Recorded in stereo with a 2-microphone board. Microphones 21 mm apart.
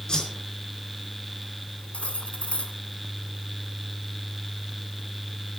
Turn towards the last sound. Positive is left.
turn(degrees=70)  # may be behind; listen again after turning